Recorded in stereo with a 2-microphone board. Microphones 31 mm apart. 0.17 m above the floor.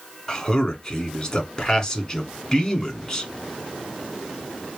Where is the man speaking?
20° left (ahead or behind), 1.4 m.